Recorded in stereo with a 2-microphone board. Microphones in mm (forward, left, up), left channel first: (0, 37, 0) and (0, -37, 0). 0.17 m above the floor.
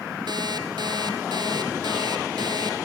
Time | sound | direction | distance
0.3 | an alarm clock | 70° right (ahead or behind) | 2 m